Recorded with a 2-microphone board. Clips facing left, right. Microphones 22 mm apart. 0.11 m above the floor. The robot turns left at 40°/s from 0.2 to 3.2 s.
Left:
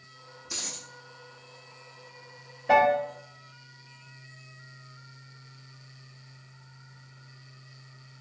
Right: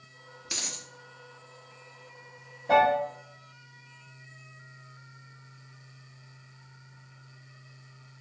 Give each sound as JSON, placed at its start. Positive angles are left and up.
{"t": 0.5, "sound": "a dropped coin", "side_deg": -45, "distance_m": 0.7}
{"t": 2.7, "sound": "a piano", "side_deg": 45, "distance_m": 0.9}